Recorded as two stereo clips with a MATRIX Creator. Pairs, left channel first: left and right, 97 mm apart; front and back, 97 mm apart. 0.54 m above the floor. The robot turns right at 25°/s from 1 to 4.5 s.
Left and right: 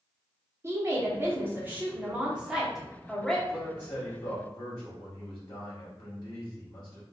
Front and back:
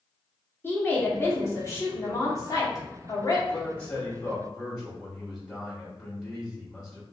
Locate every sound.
0.6 s a woman speaking: 50° right, 1.0 m; by 3.4 s 10° left, 1.0 m
3.5 s a man speaking: 40° left, 1.3 m; by 7.0 s 65° left, 1.3 m